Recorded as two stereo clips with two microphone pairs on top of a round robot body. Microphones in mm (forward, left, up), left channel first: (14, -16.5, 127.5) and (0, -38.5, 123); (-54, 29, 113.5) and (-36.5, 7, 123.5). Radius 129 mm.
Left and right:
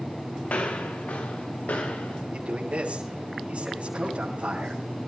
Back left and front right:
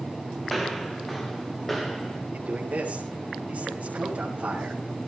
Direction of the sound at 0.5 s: 50° left.